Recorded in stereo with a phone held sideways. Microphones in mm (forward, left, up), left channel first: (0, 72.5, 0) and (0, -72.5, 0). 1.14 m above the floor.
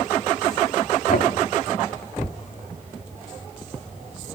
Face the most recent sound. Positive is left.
turn(degrees=70)  # may be behind; listen again after turning